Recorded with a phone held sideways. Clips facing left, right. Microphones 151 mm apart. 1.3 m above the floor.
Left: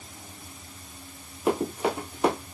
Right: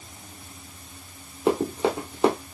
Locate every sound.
1.5 s running footsteps: 25° right (ahead or behind), 1.6 m